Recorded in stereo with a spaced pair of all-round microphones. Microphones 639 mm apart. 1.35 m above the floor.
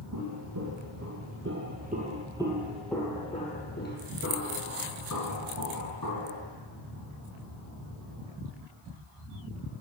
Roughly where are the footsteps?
Right.